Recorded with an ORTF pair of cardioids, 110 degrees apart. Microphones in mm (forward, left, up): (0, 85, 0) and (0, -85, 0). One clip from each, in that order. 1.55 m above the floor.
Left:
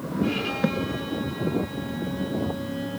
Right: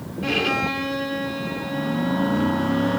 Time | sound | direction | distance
0.2 | a violin | 45° right | 3 m